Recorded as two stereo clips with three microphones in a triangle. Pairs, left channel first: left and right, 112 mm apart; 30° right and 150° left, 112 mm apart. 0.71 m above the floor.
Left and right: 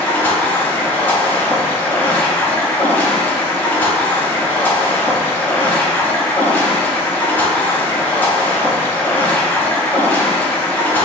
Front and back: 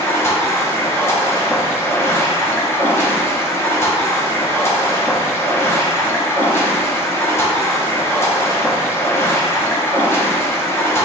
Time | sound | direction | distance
0.0 | running water | 25° left | 0.8 m